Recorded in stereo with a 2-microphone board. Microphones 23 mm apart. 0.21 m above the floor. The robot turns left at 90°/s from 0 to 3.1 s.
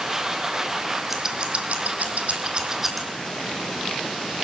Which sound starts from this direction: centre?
Scissors, at 1.1 s.